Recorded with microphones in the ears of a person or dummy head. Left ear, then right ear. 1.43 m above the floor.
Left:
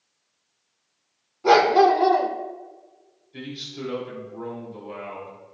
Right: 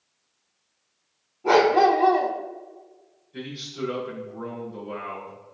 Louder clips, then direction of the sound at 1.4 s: Left 2 dB; 60° left (ahead or behind).